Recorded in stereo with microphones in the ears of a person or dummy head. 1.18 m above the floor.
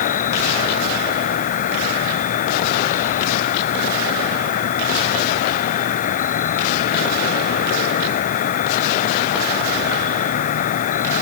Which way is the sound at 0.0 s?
45° left (ahead or behind).